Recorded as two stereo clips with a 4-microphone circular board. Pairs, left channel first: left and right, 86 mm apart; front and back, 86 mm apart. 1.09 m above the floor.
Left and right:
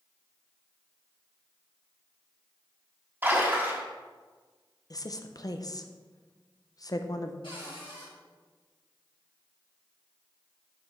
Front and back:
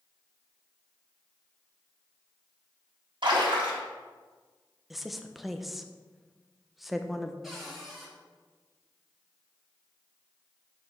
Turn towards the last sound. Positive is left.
turn(degrees=95)